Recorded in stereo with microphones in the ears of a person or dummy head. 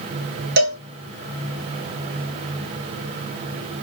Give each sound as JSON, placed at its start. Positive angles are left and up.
{"t": 0.6, "sound": "a cowbell", "side_deg": -60, "distance_m": 0.6}